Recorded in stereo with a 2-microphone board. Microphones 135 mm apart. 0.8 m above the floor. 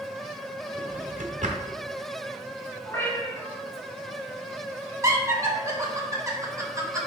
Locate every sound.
0.8 s a drawer: 65° right (ahead or behind), 1.3 m
2.8 s a cat meowing: 20° left (ahead or behind), 3.5 m
5.0 s laughter: 25° right (ahead or behind), 2.5 m